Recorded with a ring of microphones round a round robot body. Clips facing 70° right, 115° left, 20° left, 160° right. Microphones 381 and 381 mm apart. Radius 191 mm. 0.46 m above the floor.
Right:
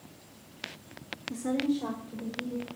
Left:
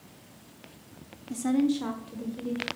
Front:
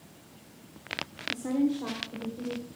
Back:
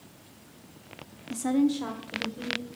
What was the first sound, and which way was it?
A woman speaking, straight behind.